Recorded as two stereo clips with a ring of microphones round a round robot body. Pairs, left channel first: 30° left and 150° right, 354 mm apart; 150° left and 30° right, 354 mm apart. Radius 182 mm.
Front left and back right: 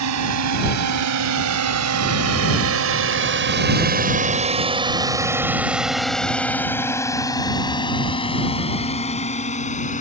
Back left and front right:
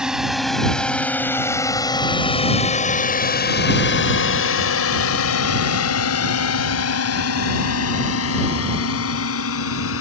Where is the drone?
120° right; by 10.0 s 100° left.